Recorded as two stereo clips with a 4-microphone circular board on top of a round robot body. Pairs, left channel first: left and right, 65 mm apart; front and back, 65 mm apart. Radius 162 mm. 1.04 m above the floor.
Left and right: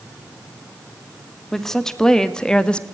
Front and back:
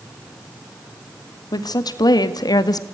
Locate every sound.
1.5 s a woman speaking: 5° left, 2.5 m; by 2.9 s 15° left, 1.5 m